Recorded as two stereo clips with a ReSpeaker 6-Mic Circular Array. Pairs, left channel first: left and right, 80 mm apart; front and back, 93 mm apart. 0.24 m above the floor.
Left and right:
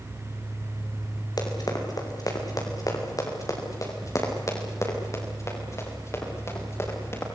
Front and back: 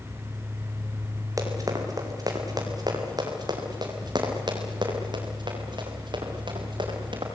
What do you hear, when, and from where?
1.4 s running footsteps: 130° left, 5.5 m; by 7.2 s 145° left, 8 m